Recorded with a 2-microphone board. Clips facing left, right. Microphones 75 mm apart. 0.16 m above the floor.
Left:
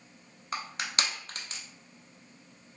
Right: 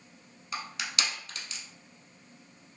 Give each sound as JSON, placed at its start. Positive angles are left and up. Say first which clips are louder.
{"t": 0.5, "sound": "crushing", "louder": "left 1 dB", "side_deg": 40, "distance_m": 0.6}